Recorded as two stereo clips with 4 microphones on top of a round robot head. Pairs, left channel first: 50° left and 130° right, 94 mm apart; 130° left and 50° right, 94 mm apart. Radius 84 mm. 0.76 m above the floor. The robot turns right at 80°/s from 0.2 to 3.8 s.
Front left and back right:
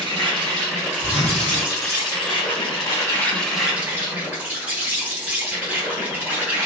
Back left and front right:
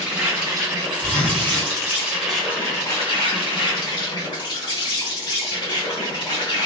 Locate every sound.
0.0 s an insect: 130° right, 1.3 m; by 6.7 s 160° left, 1.3 m
1.0 s a zipper: 40° left, 1.5 m; by 1.7 s 95° left, 1.5 m